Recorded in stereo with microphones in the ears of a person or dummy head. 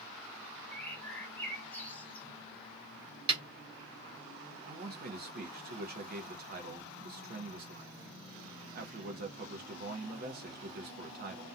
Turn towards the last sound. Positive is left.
turn(degrees=-50)  # may be behind; listen again after turning